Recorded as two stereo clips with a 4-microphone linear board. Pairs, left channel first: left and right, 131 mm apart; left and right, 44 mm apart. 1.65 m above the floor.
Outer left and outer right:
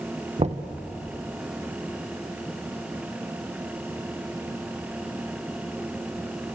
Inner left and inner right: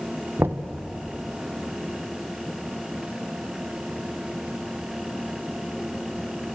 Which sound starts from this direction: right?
Knocking, at 0.4 s.